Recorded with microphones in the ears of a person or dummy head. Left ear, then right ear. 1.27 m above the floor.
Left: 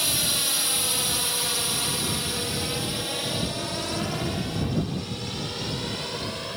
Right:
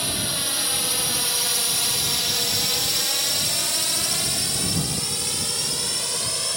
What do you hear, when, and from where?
0.0 s a drone: 10° left (ahead or behind); by 6.6 s 75° right (ahead or behind)